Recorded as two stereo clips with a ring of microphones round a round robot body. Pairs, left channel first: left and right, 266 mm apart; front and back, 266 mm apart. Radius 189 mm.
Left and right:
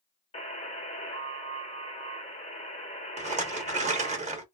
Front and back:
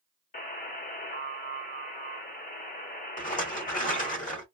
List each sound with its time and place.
0.3 s a buzzer: 35° left, 1.2 m
3.2 s a rattle: 40° right, 0.9 m